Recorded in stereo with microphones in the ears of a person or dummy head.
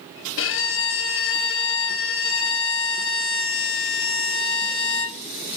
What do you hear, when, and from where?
0.4 s a violin: 60° left (ahead or behind), 0.6 m